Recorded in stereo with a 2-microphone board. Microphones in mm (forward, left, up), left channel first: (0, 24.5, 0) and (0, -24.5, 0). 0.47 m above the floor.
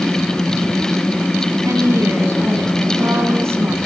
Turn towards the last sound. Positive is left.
turn(degrees=-65)  # may be behind; listen again after turning